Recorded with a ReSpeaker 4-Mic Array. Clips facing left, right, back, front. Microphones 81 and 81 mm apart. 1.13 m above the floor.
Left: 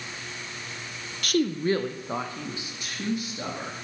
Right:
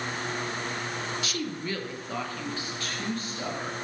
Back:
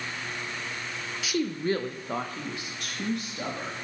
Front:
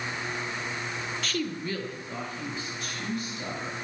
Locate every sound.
1.2 s a woman speaking: 100° left, 0.6 m; by 3.8 s 170° left, 2.5 m